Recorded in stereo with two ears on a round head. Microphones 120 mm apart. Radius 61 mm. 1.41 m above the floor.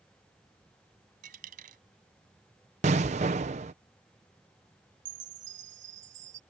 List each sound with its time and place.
1.2 s a dropped coin: 65° right (ahead or behind)
2.8 s an explosion: 50° right (ahead or behind)
5.0 s a chime: 55° right (ahead or behind)